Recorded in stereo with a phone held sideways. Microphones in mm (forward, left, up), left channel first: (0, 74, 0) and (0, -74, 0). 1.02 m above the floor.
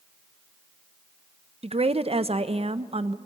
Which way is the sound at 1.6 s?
40° right (ahead or behind).